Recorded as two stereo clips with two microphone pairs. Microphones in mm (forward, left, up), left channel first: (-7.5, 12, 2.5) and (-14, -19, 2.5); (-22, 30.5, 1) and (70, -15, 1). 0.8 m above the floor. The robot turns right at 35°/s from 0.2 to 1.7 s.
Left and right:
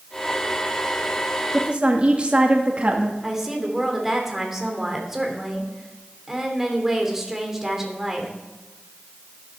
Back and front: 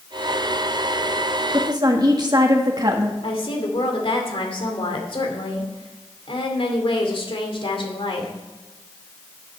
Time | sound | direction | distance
1.5 | a woman speaking | 65° right | 1.5 m
3.2 | a woman speaking | straight behind | 2.5 m